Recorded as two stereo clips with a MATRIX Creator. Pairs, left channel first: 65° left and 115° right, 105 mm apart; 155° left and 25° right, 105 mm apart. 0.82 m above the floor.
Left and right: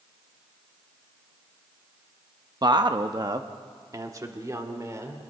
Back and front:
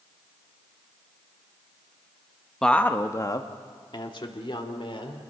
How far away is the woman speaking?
About 0.9 m.